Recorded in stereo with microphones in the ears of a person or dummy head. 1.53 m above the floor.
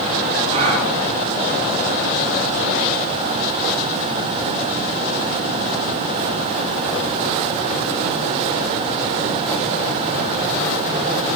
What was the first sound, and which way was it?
A gasp, 30° right (ahead or behind).